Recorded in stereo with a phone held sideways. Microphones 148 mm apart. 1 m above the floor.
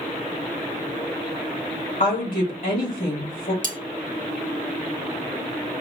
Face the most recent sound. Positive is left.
turn(degrees=-60)  # may be behind; listen again after turning